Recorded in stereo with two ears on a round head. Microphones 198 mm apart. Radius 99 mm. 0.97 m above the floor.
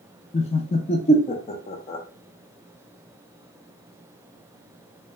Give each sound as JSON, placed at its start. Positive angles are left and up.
{"t": 0.3, "sound": "laughter", "side_deg": 30, "distance_m": 0.5}